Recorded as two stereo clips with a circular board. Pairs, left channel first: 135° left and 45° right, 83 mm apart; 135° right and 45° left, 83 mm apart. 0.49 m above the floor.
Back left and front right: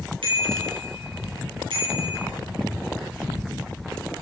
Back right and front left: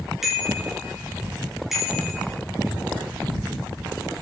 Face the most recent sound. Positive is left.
turn(degrees=-45)